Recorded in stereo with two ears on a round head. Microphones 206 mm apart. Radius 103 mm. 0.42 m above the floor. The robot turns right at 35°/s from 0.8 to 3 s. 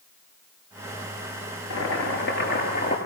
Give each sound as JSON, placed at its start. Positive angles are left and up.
{"t": 1.7, "sound": "boiling", "azimuth_deg": 110, "distance_m": 8.0}